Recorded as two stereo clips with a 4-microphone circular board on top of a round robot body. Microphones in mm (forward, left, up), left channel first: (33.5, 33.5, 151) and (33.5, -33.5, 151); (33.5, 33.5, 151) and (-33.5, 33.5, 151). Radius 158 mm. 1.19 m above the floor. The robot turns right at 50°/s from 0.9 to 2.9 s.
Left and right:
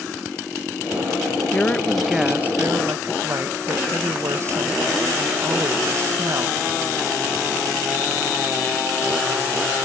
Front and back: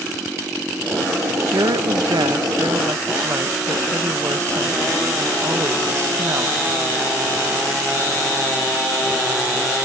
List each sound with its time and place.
1.5 s a woman speaking: 155° left; by 6.6 s 135° right